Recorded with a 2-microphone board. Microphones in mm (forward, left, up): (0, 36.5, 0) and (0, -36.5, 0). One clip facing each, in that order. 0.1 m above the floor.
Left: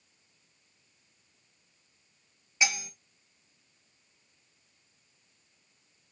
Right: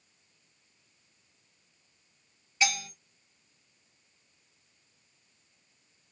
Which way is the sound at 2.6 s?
20° left (ahead or behind).